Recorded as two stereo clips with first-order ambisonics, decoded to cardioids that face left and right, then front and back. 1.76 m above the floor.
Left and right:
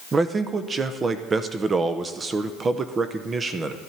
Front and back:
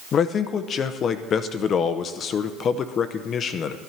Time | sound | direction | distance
0.1 | a man speaking | 35° right | 0.7 m